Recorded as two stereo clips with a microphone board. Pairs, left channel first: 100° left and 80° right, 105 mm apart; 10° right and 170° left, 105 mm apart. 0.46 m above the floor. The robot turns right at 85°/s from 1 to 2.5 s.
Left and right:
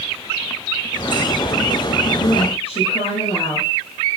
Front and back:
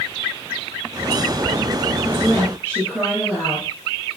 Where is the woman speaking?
60° left, 8 m; by 4.2 s 100° left, 8 m.